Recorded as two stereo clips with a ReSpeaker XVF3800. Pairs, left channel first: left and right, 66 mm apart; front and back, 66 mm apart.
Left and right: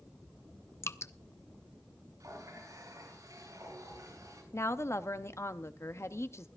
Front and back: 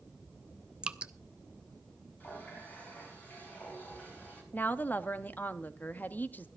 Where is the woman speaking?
55° left, 0.8 m.